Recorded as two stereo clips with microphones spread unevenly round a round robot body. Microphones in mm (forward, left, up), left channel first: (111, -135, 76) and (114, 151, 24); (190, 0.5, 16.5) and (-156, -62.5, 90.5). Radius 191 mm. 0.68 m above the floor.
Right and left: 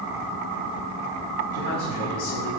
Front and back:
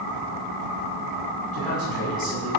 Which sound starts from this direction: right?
A man speaking, at 1.5 s.